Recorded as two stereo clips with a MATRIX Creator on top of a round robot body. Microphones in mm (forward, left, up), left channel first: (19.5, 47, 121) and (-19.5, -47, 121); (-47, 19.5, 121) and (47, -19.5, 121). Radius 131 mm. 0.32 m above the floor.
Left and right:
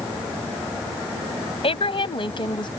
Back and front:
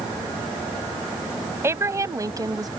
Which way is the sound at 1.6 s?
40° left.